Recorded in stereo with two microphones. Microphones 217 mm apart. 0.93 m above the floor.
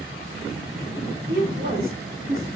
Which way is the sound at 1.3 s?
60° right (ahead or behind).